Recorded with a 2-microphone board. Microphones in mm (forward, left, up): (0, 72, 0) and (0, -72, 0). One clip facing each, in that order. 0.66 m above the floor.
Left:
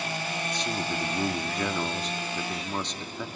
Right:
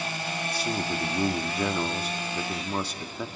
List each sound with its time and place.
0.5 s a man speaking: 10° right (ahead or behind), 0.9 m